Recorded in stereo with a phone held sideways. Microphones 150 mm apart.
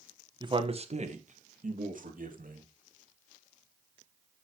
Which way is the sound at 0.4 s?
30° right (ahead or behind).